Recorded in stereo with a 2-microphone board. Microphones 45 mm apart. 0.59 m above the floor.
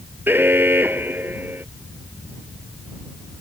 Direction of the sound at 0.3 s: 50° right (ahead or behind).